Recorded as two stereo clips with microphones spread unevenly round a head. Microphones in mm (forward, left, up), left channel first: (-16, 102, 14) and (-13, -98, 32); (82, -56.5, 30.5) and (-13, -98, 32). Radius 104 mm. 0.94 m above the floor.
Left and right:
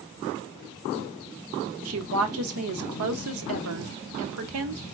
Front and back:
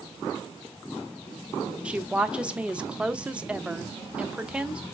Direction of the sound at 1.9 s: 75° right.